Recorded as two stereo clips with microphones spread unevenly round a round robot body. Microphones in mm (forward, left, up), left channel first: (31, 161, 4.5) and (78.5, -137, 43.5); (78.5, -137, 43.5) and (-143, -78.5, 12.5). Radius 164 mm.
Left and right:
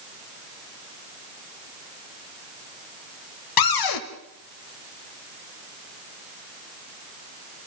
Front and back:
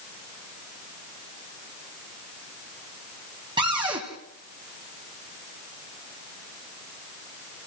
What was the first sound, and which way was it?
A cupboard door, 85° left.